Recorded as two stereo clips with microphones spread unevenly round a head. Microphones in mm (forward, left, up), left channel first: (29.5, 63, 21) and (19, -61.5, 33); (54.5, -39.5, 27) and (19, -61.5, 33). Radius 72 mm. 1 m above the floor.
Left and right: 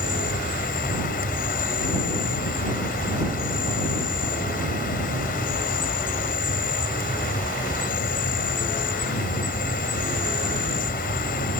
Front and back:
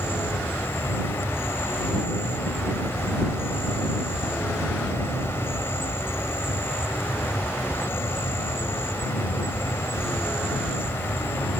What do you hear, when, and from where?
0.0 s an insect: 85° left